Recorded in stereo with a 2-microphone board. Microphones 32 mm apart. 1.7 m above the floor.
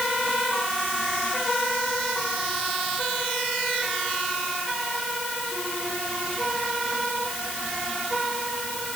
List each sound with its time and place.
Only background noise.